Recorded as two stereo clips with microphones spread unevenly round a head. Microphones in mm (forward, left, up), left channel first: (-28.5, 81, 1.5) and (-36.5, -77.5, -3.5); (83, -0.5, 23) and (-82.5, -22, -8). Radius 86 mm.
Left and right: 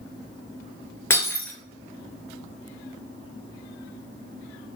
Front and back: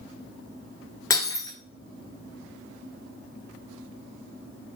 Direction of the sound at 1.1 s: 30° left.